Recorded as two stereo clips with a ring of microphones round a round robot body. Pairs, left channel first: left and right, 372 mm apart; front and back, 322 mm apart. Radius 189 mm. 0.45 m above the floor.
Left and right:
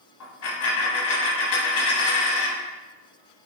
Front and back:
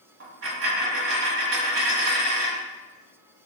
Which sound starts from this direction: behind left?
A dropped coin, at 0.2 s.